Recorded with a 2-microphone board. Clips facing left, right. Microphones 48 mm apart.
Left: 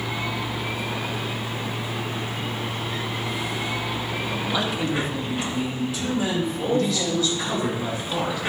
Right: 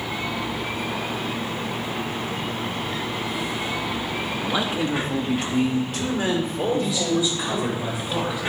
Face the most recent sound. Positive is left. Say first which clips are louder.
# left 1 dB
turn(degrees=-20)  # may be behind; listen again after turning